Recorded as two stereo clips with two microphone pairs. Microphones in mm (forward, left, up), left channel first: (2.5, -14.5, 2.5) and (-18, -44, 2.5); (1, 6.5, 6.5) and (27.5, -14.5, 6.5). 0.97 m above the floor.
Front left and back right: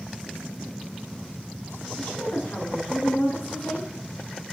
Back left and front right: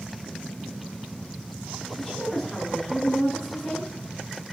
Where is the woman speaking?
60° left, 9.5 m.